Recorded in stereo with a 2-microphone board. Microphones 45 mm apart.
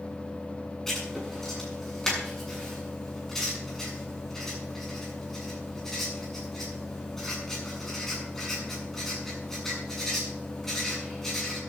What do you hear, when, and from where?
0.9 s writing: 10° left (ahead or behind), 7.5 m